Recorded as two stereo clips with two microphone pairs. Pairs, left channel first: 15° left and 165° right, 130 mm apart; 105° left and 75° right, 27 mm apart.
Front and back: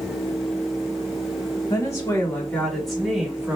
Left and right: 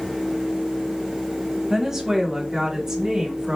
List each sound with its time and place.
1.7 s a woman speaking: 10° right, 1.4 m; by 3.6 s 110° right, 1.3 m